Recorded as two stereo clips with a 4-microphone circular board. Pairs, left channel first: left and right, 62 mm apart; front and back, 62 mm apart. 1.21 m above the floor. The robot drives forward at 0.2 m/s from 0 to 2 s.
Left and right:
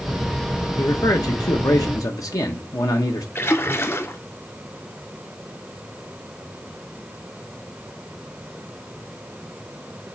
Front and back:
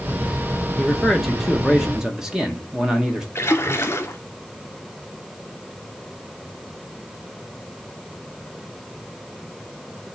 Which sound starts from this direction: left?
A man speaking, at 0.8 s.